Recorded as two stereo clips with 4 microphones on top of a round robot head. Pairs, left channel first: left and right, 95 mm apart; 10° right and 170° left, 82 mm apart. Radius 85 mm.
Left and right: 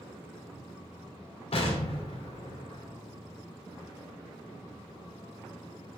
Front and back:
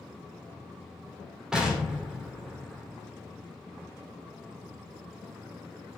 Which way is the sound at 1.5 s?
85° left.